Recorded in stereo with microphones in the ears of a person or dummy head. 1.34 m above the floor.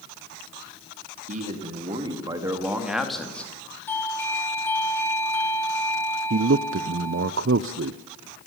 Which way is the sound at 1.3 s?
45° right (ahead or behind).